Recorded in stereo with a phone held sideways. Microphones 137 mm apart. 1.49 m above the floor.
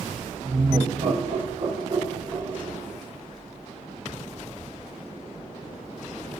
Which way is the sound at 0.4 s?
75° right (ahead or behind).